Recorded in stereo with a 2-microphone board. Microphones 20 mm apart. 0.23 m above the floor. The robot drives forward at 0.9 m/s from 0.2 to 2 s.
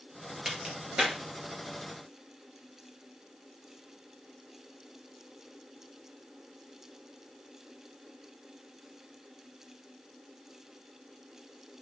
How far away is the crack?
About 3.5 m.